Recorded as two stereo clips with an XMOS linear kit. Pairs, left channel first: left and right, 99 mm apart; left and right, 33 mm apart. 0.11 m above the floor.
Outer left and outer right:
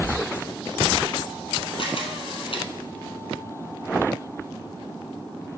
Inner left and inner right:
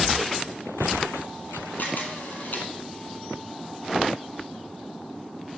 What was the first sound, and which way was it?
A camera shutter, 65° left (ahead or behind).